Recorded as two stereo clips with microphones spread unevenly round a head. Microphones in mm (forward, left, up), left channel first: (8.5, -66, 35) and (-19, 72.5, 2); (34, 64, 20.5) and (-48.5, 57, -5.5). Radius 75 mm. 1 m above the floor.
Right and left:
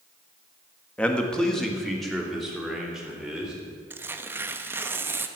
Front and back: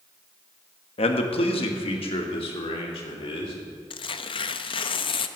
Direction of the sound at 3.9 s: 25° left.